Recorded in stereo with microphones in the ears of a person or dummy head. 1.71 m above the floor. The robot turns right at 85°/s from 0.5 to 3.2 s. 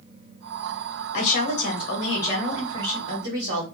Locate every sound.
1.1 s a woman speaking: 65° left, 1.0 m; by 3.6 s 120° right, 1.0 m